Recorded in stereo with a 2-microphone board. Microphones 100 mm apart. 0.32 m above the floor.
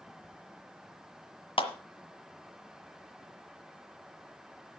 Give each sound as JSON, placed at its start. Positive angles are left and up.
{"t": 1.6, "sound": "a clap", "side_deg": 60, "distance_m": 1.6}